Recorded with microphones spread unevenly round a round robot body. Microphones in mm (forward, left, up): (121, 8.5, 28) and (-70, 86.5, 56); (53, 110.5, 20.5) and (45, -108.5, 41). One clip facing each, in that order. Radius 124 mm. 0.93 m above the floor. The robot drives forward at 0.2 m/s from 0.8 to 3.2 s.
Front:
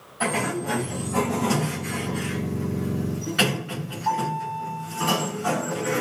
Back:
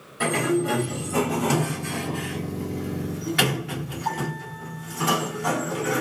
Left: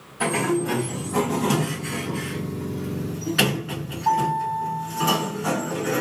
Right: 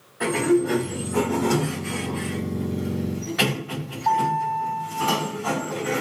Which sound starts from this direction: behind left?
A sliding door, at 0.2 s.